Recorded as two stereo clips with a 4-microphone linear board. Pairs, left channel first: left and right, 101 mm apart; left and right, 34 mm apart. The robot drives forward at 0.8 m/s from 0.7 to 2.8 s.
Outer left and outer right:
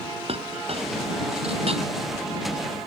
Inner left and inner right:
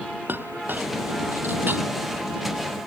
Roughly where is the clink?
Right.